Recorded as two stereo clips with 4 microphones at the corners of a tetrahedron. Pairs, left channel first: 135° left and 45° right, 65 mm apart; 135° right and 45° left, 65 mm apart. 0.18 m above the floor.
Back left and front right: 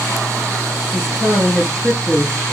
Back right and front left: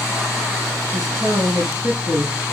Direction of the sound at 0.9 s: 55° left.